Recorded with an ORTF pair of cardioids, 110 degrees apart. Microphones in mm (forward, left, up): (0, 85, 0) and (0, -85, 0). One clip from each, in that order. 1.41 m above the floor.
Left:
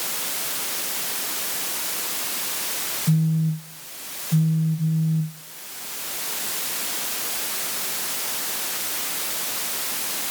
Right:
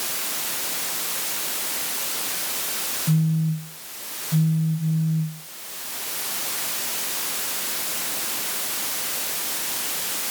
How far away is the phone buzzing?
About 0.6 m.